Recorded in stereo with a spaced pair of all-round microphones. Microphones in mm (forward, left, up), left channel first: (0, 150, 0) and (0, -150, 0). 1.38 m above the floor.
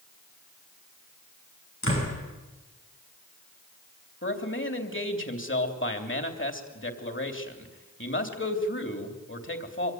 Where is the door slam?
45° left (ahead or behind), 9.5 m.